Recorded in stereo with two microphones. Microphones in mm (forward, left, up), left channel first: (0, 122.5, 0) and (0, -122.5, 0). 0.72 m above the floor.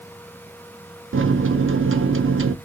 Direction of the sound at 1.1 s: 50° right (ahead or behind).